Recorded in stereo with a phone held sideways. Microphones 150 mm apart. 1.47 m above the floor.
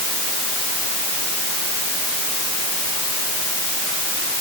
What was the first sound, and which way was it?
Only background noise.